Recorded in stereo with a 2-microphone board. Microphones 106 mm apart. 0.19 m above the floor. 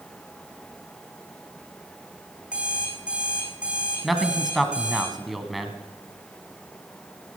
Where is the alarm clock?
10° right (ahead or behind), 4 m.